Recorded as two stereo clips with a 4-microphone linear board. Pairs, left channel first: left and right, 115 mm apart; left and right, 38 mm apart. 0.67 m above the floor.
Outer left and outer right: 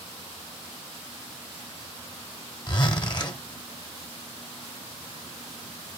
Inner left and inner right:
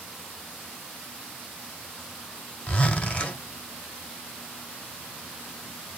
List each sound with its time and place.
2.7 s a zipper: 40° left (ahead or behind), 1.4 m